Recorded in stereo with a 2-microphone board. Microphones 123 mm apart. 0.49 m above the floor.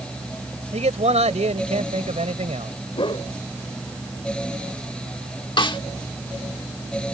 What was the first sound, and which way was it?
A man speaking, 65° right (ahead or behind).